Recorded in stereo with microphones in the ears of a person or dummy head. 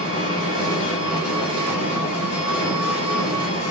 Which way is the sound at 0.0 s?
50° left (ahead or behind).